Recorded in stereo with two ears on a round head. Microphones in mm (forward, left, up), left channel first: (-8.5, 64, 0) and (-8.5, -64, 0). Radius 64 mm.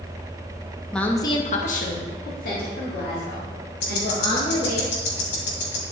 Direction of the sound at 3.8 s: 80° left.